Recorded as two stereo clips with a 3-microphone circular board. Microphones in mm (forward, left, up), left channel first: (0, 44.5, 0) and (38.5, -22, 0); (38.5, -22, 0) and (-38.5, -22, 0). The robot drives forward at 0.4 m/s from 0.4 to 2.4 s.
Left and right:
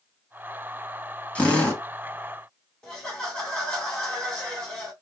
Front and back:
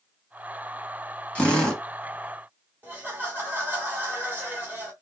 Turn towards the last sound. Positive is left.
turn(degrees=-175)